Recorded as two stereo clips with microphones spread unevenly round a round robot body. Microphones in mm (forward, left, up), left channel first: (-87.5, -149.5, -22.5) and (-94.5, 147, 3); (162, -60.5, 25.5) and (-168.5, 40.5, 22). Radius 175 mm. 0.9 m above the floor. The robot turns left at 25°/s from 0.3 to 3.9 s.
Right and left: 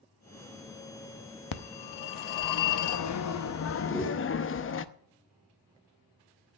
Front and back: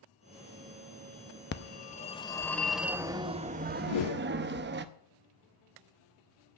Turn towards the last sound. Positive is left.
turn(degrees=-5)